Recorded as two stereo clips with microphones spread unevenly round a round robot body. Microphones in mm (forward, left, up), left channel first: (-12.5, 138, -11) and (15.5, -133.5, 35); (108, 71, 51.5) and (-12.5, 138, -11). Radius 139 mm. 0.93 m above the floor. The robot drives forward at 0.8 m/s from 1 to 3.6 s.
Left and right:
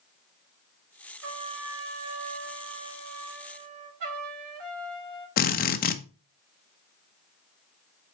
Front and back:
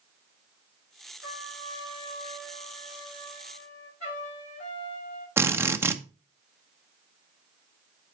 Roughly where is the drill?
Behind left.